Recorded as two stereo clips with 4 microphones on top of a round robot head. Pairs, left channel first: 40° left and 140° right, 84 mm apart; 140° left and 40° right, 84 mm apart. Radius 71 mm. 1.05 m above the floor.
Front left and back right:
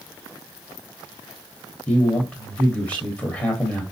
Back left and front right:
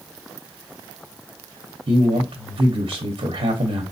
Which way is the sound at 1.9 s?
30° right.